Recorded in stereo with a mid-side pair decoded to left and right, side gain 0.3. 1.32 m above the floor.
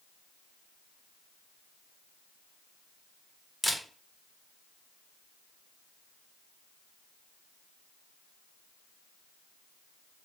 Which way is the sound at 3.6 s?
10° left.